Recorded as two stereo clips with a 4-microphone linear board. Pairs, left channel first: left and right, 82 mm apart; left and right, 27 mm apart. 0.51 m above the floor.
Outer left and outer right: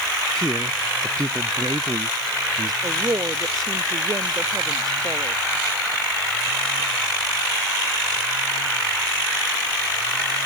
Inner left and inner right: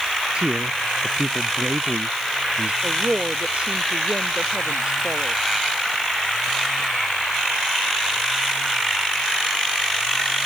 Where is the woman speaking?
50° right (ahead or behind).